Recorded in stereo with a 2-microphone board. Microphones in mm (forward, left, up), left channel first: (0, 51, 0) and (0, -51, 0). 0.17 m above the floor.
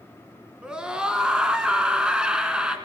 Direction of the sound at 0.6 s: 10° right (ahead or behind).